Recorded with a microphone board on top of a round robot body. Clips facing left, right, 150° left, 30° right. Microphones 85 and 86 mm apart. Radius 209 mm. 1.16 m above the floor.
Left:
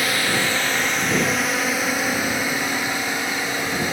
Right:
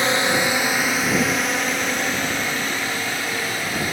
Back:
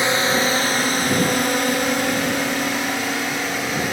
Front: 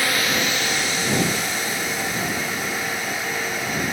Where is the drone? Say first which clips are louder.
Right 3 dB, back 4 dB; 150° right; by 3.9 s 160° left.